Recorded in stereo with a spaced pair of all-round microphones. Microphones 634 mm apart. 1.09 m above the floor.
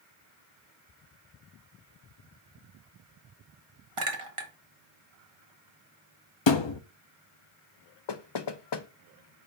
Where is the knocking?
45° left (ahead or behind), 0.5 m.